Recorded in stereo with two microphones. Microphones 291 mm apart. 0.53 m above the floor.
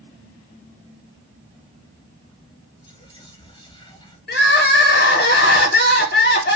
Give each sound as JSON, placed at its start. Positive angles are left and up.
{"t": 2.8, "sound": "whispering", "side_deg": 15, "distance_m": 0.7}
{"t": 4.3, "sound": "crying", "side_deg": 35, "distance_m": 0.7}